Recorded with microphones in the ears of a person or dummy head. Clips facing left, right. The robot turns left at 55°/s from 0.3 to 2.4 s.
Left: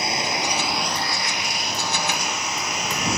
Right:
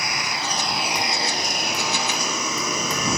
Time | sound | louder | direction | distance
0.0 | a lawn mower | left 4 dB | 20° left | ?